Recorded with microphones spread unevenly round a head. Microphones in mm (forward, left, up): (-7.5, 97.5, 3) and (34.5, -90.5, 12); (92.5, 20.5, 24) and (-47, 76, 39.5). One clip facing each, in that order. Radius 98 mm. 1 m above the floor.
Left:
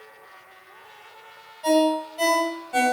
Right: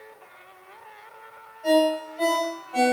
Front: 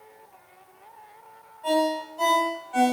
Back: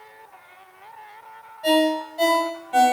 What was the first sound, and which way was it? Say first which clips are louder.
A ringtone: left 1 dB, back 4 dB; 145° left.